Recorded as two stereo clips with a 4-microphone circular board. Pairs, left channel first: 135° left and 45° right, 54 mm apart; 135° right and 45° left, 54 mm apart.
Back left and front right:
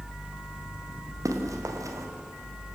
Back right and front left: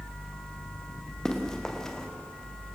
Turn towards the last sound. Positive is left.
turn(degrees=-55)